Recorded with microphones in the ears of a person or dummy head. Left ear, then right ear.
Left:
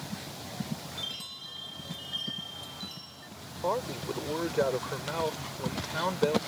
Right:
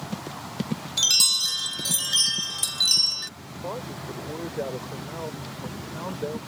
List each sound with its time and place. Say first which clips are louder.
1.0 s a chime: right 20 dB; 65° right (ahead or behind)
3.6 s a man speaking: left 3 dB; 70° left (ahead or behind)